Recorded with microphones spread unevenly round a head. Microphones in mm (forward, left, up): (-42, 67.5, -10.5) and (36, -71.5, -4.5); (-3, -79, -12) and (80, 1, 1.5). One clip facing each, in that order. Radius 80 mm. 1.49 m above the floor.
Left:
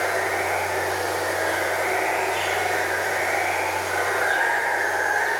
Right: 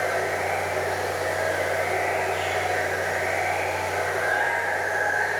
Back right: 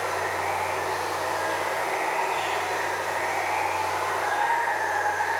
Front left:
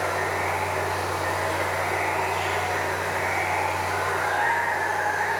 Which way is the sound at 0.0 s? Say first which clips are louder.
Left 1 dB, front left 1 dB; 140° left.